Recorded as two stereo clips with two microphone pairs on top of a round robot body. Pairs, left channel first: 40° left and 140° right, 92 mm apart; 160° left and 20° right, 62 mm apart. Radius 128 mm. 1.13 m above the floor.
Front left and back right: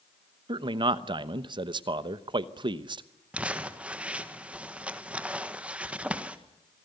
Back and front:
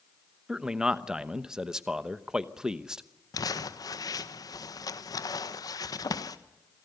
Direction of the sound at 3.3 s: 145° left.